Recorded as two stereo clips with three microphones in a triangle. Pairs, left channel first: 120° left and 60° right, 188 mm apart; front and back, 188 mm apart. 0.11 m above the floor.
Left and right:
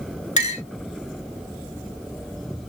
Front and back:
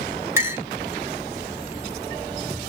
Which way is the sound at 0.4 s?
115° left.